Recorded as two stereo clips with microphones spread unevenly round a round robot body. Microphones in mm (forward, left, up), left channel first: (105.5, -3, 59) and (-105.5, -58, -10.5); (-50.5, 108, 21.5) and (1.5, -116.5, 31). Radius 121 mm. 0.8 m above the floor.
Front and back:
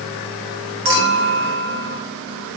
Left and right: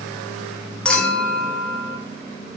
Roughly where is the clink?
Behind.